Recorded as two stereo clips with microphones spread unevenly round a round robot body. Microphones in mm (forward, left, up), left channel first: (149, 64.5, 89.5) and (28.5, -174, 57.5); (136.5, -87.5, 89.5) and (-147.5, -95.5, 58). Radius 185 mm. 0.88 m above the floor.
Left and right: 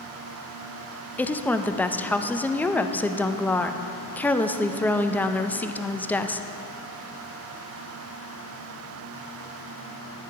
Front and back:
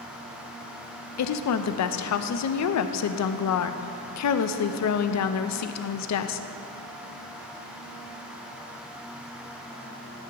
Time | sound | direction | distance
1.2 | a woman speaking | 25° right | 0.6 m